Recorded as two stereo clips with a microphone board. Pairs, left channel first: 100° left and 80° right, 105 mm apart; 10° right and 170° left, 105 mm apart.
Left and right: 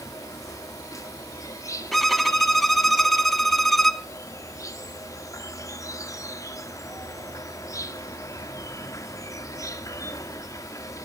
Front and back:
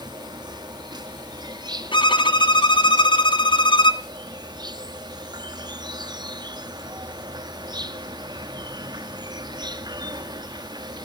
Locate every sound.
0.0 s an insect: 145° left, 1.1 m
1.9 s a violin: 15° left, 0.9 m